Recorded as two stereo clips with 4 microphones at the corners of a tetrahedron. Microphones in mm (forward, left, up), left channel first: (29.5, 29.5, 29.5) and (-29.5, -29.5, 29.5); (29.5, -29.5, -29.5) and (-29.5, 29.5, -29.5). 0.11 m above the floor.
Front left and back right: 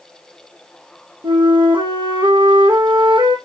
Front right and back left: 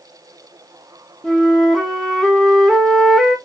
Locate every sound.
1.2 s a flute: 130° right, 1.9 m